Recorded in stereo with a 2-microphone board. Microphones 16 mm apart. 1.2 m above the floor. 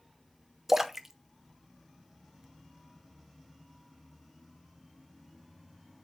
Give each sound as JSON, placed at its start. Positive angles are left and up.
{"t": 0.7, "sound": "a splash", "side_deg": -15, "distance_m": 0.7}